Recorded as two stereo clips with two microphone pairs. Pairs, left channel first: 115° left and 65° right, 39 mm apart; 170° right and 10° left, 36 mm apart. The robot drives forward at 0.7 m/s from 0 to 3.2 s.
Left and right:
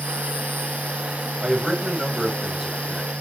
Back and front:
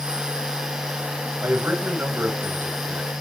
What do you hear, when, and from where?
1.4 s a man speaking: 15° left, 2.5 m; by 3.1 s 35° left, 1.3 m